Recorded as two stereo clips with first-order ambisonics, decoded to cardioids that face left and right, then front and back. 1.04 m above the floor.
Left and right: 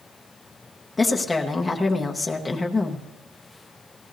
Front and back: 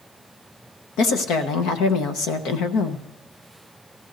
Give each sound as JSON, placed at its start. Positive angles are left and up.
{"t": 1.0, "sound": "a woman speaking", "azimuth_deg": 10, "distance_m": 0.8}